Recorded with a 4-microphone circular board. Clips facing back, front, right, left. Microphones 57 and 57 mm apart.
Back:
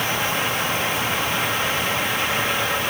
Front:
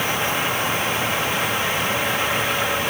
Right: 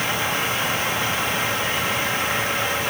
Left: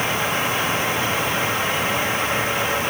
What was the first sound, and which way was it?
Only background noise.